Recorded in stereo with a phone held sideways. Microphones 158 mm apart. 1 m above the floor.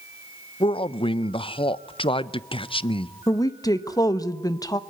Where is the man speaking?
35° left (ahead or behind), 0.6 m.